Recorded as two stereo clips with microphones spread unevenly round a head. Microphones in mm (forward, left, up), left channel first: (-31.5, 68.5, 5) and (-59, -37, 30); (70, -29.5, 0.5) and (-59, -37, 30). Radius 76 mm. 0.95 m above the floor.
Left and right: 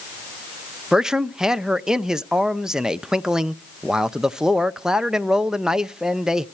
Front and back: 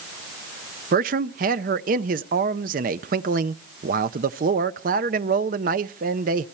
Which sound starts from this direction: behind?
A man speaking, at 0.9 s.